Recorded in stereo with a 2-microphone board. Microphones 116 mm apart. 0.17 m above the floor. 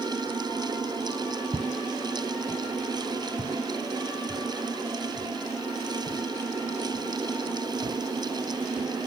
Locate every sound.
1.5 s footsteps: 30° right (ahead or behind), 0.8 m; by 9.1 s 25° right (ahead or behind), 9 m